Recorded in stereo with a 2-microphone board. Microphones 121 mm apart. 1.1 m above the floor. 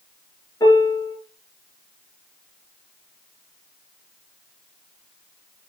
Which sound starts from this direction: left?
A piano, at 0.6 s.